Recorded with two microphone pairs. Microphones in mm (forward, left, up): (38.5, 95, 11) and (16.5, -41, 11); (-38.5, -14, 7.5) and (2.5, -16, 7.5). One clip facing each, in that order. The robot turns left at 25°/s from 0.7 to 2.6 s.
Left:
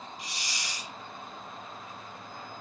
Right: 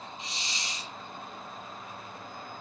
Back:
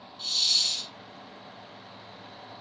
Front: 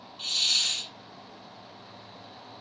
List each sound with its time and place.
0.2 s a hiss: 40° right, 1.3 m; by 0.9 s 45° right, 1.3 m